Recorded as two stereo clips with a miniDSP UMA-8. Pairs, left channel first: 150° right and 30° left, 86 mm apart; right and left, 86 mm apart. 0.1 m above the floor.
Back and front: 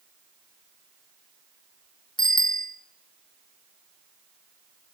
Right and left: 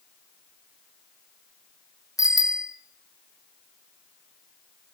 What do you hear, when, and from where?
2.2 s a bicycle bell: 135° right, 3.5 m